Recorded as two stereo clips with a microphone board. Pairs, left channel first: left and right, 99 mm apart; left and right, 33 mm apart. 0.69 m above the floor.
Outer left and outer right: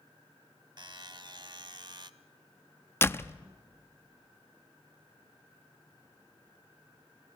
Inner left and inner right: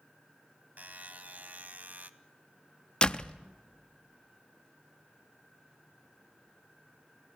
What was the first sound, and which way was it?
A buzzer, 50° right (ahead or behind).